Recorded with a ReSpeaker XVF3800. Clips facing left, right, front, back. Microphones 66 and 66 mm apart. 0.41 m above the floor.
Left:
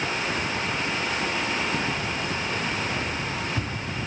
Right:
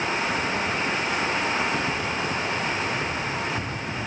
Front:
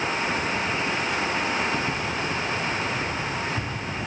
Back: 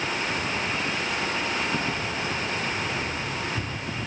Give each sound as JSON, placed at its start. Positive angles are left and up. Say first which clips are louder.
{"t": 1.7, "sound": "keys jangling", "louder": "right 2 dB, front 1 dB", "azimuth_deg": 135, "distance_m": 1.8}